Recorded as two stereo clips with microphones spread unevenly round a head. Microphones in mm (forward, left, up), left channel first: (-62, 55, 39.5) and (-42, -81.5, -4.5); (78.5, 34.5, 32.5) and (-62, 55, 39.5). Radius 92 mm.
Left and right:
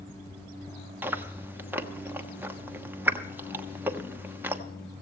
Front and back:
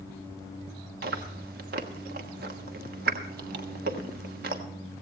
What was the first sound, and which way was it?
Chewing, 155° right.